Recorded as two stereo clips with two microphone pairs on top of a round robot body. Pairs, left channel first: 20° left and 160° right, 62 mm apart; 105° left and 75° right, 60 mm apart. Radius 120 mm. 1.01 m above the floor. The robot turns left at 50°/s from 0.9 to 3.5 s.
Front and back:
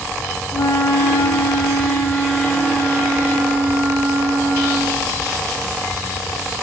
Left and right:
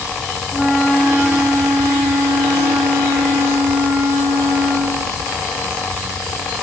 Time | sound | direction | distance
0.5 | a flute | 25° left | 1.1 m